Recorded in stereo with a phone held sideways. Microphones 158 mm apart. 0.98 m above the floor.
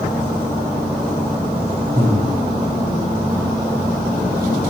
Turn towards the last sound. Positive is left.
turn(degrees=-80)